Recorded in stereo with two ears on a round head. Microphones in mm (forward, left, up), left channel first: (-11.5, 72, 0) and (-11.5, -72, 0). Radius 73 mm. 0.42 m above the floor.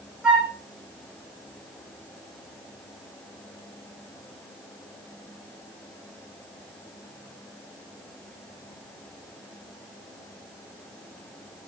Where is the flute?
5° right (ahead or behind), 4 m.